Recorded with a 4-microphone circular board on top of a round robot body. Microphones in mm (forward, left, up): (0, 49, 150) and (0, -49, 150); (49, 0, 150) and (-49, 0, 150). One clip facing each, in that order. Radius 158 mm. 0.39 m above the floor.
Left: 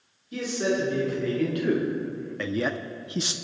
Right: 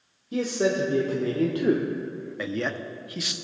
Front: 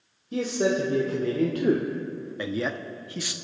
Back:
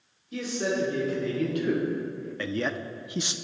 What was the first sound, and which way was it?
A man speaking, 40° right.